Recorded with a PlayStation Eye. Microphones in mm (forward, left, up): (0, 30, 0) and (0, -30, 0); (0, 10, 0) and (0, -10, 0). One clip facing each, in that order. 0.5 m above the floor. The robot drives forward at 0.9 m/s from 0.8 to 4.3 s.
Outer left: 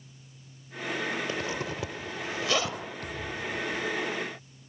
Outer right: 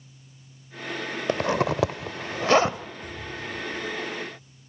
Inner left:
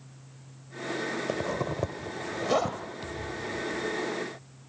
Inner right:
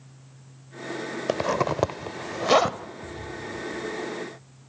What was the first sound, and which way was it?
A zipper, 55° right (ahead or behind).